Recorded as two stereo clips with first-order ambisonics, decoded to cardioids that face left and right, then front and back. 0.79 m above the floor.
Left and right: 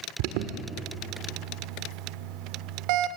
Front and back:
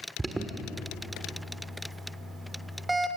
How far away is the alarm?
About 1.3 m.